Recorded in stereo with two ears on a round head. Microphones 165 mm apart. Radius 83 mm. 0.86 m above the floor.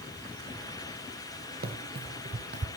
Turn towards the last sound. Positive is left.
turn(degrees=-60)  # may be behind; listen again after turning